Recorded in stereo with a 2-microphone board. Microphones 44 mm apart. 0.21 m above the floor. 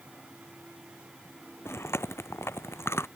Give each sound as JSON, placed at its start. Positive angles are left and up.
{"t": 1.6, "sound": "chewing", "side_deg": 80}